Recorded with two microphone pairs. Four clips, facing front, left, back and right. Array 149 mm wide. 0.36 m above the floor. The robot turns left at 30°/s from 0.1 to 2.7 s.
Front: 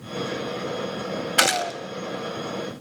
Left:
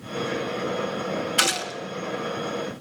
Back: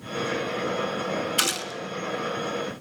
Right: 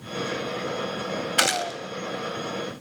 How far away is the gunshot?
About 1.9 m.